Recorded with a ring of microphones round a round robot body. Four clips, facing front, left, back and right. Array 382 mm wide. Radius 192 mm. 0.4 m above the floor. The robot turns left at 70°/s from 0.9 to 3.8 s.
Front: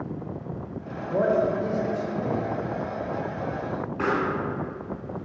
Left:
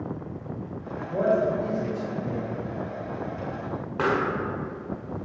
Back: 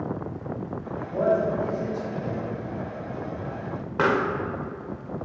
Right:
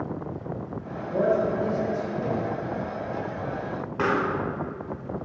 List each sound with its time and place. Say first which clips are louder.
1.1 s a man speaking: even, front 1 dB; 5° left, 1.8 m; by 2.5 s 100° right, 1.8 m
4.0 s a pop: even, back 3 dB; 175° left, 0.7 m